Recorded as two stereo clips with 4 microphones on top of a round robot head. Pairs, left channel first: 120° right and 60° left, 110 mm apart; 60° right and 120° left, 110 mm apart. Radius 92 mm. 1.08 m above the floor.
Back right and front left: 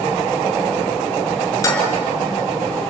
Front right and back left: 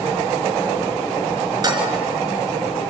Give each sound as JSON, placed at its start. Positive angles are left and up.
{"t": 1.6, "sound": "dishes clattering", "azimuth_deg": 175, "distance_m": 5.0}